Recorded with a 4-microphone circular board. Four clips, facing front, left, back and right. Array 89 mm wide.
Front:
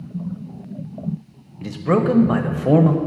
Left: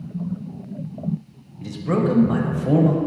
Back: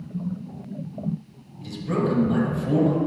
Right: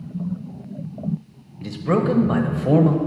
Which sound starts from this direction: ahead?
A man speaking, at 1.6 s.